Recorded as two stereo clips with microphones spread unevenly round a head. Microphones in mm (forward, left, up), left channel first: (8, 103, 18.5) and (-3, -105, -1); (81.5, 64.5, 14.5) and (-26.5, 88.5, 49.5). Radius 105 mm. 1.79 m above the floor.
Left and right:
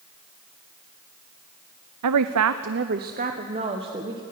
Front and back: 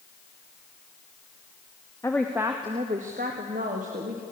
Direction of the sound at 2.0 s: 90° right.